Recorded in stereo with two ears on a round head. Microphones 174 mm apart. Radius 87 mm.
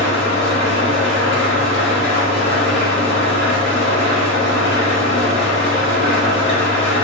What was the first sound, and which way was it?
An engine running, 60° left (ahead or behind).